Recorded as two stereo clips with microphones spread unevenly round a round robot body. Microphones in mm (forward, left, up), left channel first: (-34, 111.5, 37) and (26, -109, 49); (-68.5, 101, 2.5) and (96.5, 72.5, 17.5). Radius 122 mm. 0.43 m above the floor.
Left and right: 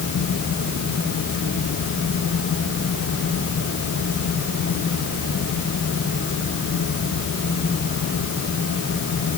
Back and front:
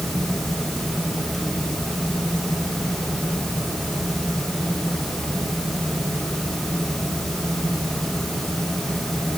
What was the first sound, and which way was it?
Only background noise.